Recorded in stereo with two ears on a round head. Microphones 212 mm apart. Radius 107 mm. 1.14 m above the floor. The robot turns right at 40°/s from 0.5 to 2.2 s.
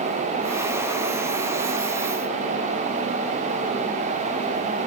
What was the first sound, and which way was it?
Only background noise.